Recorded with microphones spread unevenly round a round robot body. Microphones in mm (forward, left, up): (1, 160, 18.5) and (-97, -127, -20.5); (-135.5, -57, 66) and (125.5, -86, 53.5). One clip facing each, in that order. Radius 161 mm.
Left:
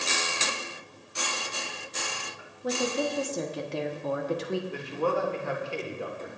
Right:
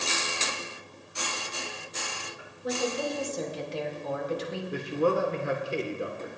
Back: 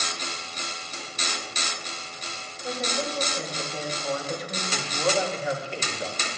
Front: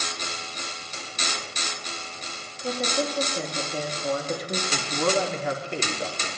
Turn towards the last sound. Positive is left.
turn(degrees=-40)